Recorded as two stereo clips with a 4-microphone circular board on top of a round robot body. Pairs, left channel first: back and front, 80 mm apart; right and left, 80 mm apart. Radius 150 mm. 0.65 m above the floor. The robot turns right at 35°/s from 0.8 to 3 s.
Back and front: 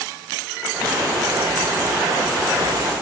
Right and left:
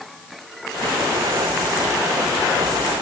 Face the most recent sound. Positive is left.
No sound to turn to.